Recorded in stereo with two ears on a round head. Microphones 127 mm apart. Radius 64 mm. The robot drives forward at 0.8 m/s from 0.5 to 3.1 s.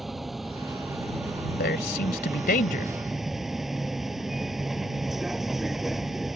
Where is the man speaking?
70° left (ahead or behind); by 2.9 s 65° left (ahead or behind).